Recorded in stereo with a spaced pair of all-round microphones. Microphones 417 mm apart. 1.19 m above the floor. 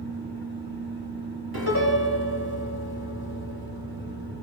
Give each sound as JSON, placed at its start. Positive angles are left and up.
{"t": 0.0, "sound": "a fan", "side_deg": -65, "distance_m": 5.0}
{"t": 1.5, "sound": "a piano", "side_deg": -60, "distance_m": 3.0}